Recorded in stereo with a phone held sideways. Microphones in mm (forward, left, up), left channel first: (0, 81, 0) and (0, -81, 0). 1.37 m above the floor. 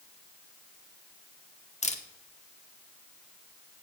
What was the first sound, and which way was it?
A camera shutter, 45° left (ahead or behind).